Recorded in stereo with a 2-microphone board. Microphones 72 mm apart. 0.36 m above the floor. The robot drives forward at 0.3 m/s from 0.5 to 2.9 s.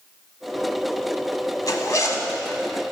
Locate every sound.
1.7 s a zipper: 55° left (ahead or behind), 0.9 m; by 2.3 s 50° left (ahead or behind), 1.0 m